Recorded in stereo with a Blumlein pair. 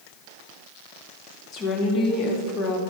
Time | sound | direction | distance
1.5 | a woman speaking | 30° left | 1.6 m